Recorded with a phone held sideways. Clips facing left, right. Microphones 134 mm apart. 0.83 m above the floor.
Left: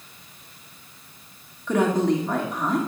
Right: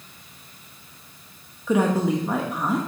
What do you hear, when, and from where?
1.7 s a woman speaking: 10° right (ahead or behind), 1.1 m